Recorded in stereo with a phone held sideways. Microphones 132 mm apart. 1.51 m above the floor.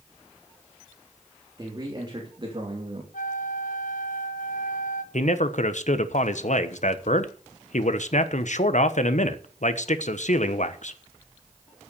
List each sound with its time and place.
1.6 s a man speaking: 25° right (ahead or behind), 3.5 m; by 3.0 s 50° right (ahead or behind), 2.5 m
3.1 s a flute: 85° left, 0.8 m
5.1 s a man speaking: 65° left (ahead or behind), 1.1 m